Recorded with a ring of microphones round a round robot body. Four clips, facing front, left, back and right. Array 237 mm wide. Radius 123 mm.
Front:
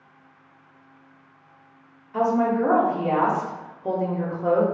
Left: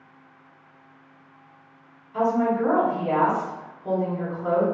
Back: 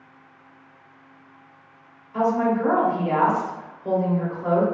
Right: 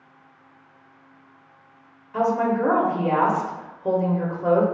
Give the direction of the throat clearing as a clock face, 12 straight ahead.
No throat clearing in this recording.